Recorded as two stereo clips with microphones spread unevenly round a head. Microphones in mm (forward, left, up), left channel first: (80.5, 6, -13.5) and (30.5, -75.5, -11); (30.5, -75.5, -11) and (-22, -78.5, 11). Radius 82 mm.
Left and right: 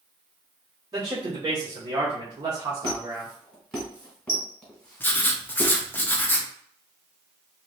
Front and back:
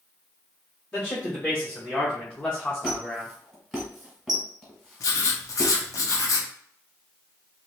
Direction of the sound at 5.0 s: 5° right.